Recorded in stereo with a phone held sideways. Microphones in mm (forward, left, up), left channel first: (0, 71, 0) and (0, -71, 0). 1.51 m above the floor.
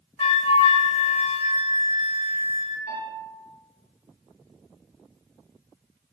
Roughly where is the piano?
Left.